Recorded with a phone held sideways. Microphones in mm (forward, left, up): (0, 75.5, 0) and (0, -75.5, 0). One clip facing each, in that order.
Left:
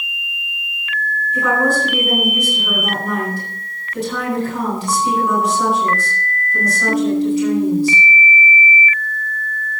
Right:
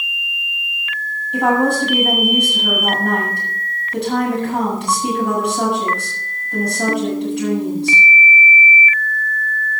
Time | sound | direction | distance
1.3 | a woman speaking | 70° right (ahead or behind) | 6.5 m